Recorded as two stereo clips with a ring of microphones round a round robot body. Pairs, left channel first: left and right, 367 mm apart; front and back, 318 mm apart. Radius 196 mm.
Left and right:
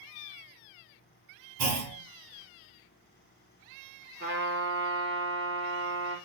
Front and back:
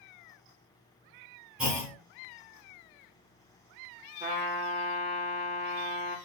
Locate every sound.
1.6 s a clunk: 95° right, 1.1 m
4.2 s a trumpet: 125° right, 1.1 m